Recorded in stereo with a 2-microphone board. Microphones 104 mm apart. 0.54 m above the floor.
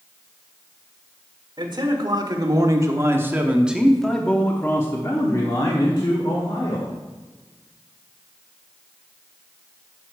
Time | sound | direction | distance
1.6 | a man speaking | 45° right (ahead or behind) | 1.7 m